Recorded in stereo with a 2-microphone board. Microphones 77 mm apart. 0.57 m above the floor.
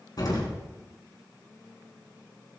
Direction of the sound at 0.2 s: 60° left (ahead or behind).